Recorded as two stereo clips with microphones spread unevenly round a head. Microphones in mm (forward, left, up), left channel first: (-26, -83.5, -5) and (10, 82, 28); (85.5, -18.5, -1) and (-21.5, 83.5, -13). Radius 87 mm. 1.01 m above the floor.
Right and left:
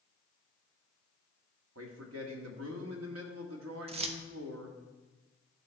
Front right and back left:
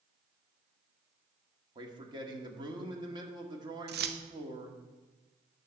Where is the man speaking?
80° left, 1.7 m.